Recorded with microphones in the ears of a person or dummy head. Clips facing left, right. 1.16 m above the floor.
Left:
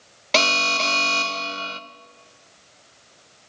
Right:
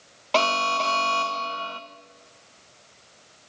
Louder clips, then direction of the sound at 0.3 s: Even; 15° left (ahead or behind).